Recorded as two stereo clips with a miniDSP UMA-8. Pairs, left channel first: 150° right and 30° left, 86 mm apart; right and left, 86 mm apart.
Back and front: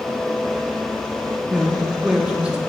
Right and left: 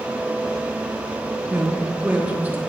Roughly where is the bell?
I don't hear a bell.